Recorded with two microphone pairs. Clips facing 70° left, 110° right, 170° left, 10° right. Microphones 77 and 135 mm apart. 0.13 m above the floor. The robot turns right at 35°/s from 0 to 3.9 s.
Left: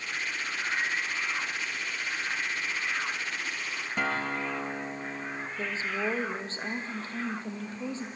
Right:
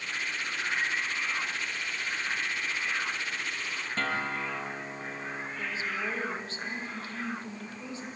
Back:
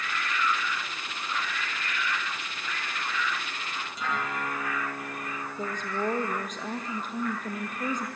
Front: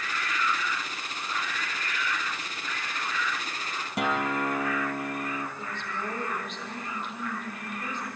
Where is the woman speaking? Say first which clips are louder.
Left 3 dB, back 5 dB; 130° left, 3.5 m.